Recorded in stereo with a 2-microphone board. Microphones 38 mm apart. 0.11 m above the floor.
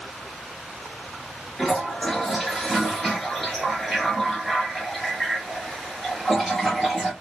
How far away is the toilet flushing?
About 1.7 m.